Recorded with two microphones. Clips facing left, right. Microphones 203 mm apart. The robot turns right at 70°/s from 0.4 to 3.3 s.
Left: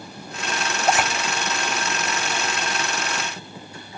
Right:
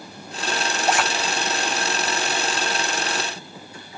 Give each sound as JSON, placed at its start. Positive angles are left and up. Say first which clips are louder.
{"t": 0.9, "sound": "a zipper", "louder": "left 1 dB", "side_deg": 15, "distance_m": 1.8}